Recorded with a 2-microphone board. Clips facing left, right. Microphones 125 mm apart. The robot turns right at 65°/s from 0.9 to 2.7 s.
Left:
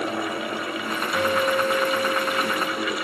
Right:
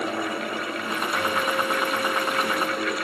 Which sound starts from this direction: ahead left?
A guitar, at 1.1 s.